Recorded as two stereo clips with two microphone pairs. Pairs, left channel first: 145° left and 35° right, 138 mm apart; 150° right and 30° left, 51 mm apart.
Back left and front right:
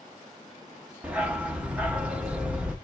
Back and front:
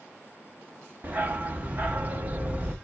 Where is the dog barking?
35° left, 0.9 m.